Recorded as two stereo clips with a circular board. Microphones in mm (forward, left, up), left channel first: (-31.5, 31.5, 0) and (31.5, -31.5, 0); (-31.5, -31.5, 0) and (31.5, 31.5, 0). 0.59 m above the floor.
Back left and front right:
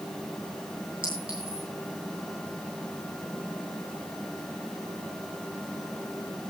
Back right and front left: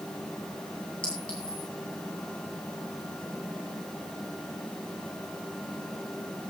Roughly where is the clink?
Ahead right.